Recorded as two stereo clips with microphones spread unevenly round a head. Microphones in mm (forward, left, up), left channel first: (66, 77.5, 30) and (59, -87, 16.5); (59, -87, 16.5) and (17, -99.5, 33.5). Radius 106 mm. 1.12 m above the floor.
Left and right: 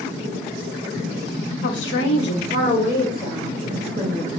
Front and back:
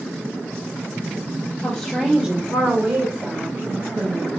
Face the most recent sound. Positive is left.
turn(degrees=175)